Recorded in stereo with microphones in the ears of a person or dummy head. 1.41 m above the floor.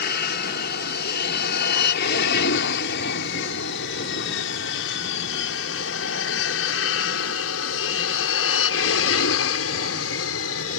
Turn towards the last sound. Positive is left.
turn(degrees=75)  # may be behind; listen again after turning